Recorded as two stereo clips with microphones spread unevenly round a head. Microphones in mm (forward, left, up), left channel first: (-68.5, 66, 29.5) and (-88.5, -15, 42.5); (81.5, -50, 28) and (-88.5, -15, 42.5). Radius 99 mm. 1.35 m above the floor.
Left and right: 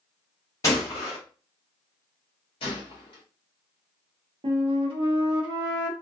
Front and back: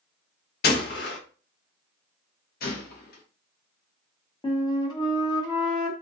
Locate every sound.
0.6 s a gunshot: 5° left, 0.7 m
2.6 s a gunshot: 35° left, 0.6 m
4.4 s a flute: 75° right, 0.7 m